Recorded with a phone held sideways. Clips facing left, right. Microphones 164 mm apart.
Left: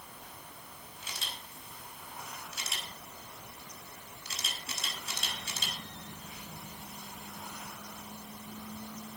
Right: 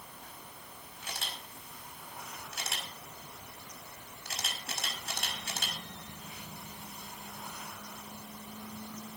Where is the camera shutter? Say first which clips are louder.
Right 3 dB; 60° right (ahead or behind), 5 m.